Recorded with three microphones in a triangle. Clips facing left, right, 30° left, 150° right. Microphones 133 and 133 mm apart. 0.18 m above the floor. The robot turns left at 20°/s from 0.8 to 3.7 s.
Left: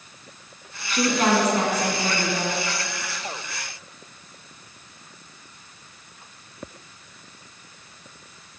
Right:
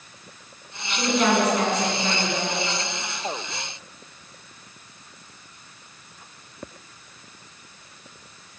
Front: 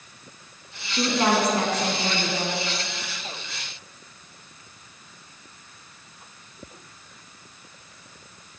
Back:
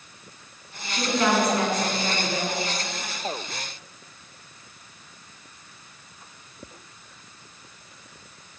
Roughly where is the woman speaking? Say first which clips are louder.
Left 1 dB, front 1 dB; left.